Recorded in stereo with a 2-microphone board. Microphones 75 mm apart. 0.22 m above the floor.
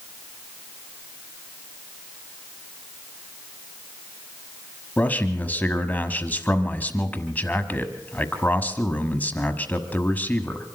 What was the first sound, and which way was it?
A man speaking, 25° left (ahead or behind).